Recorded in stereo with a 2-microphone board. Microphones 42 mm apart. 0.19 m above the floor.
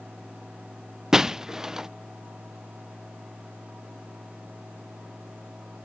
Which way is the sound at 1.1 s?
15° right (ahead or behind).